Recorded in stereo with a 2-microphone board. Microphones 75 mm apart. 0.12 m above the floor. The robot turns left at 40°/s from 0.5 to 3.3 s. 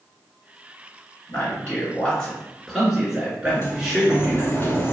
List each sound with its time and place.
1.3 s a man speaking: 50° left, 2.0 m; by 4.5 s 30° right, 2.0 m
3.5 s a sliding door: 35° left (ahead or behind), 0.7 m